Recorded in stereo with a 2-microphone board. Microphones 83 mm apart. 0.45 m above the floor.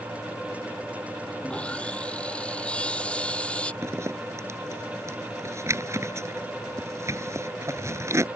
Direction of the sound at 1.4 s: 15° left (ahead or behind).